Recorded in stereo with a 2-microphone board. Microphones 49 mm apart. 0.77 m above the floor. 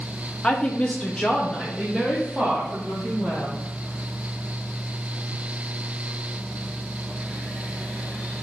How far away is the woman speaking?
About 0.8 m.